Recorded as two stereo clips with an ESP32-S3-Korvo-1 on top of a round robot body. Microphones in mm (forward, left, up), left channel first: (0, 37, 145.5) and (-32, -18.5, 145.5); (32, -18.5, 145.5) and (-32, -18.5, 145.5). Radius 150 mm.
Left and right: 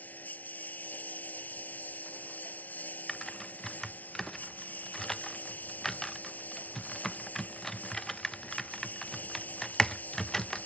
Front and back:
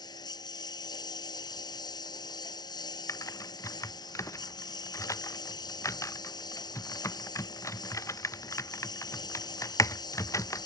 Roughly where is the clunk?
No clunk in this recording.